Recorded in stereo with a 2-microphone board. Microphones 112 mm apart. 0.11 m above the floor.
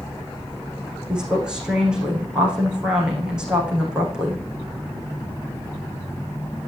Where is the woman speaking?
10° right (ahead or behind), 6.5 m.